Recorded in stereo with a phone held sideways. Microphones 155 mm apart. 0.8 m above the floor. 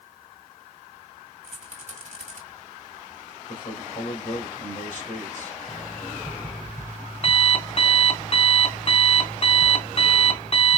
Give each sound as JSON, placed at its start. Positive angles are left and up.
{"t": 1.4, "sound": "a rattle", "side_deg": -55, "distance_m": 1.7}
{"t": 3.5, "sound": "a man speaking", "side_deg": 60, "distance_m": 2.5}
{"t": 5.7, "sound": "an alarm clock", "side_deg": 45, "distance_m": 2.0}